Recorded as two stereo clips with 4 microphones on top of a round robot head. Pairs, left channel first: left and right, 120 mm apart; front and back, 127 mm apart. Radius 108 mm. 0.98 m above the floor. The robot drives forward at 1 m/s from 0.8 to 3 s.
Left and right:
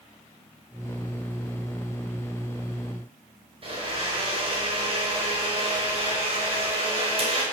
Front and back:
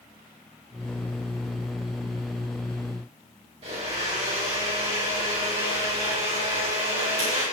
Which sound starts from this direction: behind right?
A blender, at 3.6 s.